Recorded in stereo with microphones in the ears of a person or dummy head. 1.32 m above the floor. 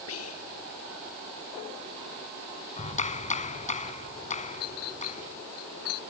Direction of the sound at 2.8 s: 40° left (ahead or behind).